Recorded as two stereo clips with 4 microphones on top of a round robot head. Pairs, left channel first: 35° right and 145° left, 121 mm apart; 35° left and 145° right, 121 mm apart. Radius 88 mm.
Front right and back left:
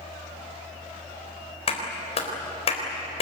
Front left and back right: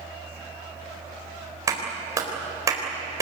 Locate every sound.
1.7 s a clap: 80° right, 4 m